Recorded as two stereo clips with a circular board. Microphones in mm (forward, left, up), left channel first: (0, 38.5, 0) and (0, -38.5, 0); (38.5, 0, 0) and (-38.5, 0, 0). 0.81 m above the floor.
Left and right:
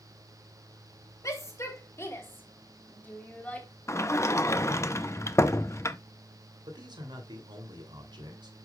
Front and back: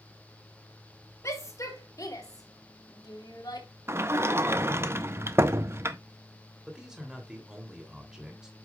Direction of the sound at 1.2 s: 45° left.